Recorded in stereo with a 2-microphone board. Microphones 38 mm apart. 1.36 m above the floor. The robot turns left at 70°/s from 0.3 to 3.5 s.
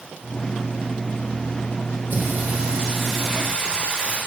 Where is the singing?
105° right, 2.5 m; by 4.2 s 155° left, 2.5 m.